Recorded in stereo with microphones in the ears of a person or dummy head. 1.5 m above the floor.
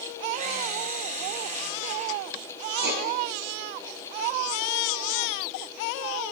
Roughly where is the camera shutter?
Right.